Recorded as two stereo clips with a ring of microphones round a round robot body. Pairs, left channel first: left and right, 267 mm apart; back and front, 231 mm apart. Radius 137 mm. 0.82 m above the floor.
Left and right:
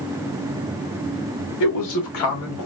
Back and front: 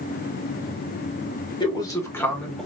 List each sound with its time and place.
1.6 s a man speaking: 110° left, 2.5 m; by 2.7 s 90° left, 2 m